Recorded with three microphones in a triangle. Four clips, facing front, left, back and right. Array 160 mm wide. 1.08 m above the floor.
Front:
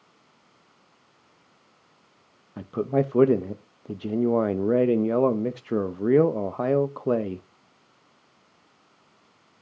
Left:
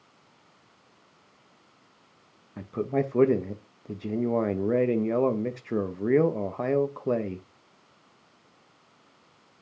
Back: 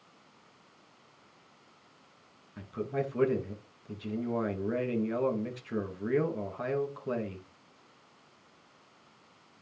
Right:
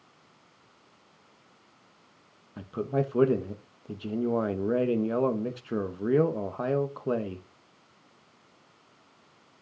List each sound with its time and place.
2.6 s a man speaking: 10° left, 1.0 m